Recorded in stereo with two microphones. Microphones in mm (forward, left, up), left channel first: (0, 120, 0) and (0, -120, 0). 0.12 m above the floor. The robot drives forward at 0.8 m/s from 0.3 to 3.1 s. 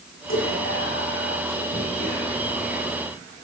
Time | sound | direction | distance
0.3 | whispering | 60° left (ahead or behind) | 7.5 m